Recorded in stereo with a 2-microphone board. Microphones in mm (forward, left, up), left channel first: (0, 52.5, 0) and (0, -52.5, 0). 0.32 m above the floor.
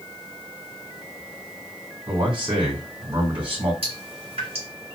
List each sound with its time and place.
2.1 s a man speaking: 50° right (ahead or behind), 2.5 m
3.8 s dripping: 70° right (ahead or behind), 2.5 m